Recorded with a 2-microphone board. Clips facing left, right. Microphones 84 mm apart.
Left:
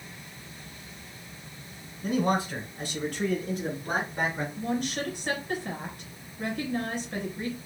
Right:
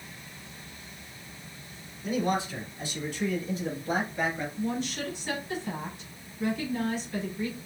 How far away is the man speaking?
About 3 m.